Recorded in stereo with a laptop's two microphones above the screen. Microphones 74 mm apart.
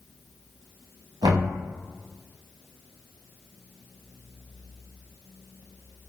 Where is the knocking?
70° right (ahead or behind), 1.0 m.